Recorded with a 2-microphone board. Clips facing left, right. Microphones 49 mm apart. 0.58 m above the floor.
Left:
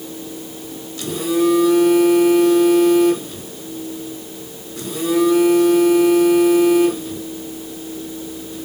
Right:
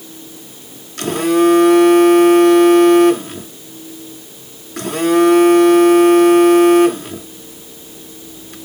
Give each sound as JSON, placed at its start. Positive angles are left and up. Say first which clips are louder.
{"t": 1.0, "sound": "a phone buzzing", "louder": "right 5 dB", "side_deg": -60, "distance_m": 1.0}